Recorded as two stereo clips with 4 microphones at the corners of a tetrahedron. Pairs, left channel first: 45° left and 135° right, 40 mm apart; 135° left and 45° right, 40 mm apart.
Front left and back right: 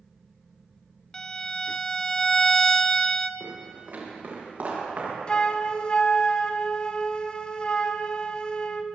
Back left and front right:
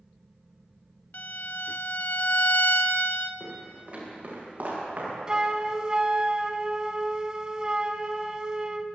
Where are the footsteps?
95° right, 7 m; by 5.1 s 90° right, 7.5 m.